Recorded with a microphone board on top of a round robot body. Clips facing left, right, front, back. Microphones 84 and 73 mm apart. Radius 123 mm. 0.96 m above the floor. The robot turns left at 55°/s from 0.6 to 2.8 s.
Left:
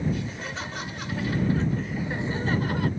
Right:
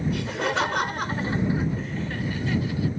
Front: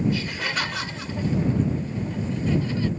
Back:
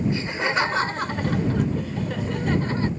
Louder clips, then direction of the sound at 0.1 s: Right 6 dB, back 3 dB; 115° right.